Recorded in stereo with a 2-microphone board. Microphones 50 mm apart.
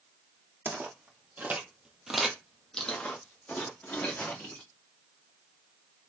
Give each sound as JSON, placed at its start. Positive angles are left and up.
{"t": 0.7, "sound": "footsteps", "side_deg": -45, "distance_m": 1.5}